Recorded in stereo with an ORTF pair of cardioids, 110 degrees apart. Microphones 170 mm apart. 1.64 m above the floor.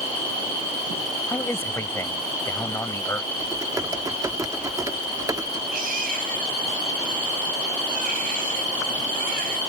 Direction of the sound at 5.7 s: 55° right.